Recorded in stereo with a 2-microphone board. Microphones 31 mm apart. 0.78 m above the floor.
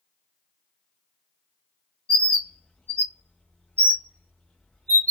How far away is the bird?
About 1.2 m.